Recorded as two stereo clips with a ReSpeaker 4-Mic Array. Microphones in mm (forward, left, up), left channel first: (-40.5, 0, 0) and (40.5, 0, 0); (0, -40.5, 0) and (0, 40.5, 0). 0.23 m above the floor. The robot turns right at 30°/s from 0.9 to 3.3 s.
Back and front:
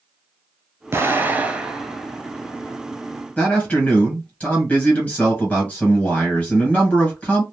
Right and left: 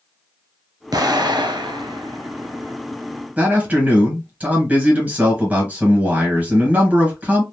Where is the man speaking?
130° left, 1.5 m.